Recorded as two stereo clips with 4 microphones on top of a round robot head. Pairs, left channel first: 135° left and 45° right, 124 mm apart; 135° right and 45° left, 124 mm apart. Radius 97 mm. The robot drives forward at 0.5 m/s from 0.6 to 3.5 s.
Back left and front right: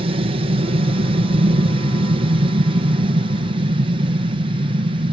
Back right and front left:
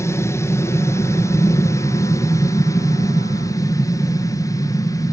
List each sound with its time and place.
0.0 s an aircraft: 70° right; by 5.1 s 75° right